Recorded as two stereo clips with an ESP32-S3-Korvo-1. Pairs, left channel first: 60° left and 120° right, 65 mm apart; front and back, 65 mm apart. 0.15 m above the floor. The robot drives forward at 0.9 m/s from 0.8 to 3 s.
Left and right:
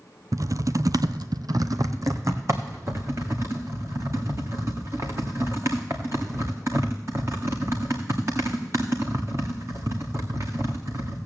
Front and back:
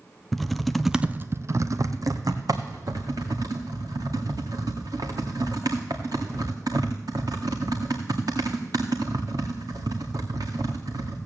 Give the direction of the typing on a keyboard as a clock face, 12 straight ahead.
3 o'clock.